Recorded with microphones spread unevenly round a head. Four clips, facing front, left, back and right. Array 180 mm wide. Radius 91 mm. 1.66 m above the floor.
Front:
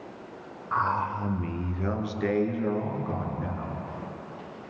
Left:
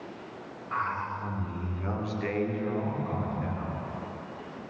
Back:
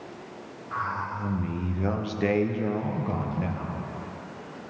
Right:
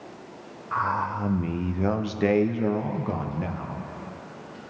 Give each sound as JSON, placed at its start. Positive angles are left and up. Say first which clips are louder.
{"t": 0.7, "sound": "a man speaking", "louder": "right 6 dB, front 4 dB", "azimuth_deg": -55, "distance_m": 0.7}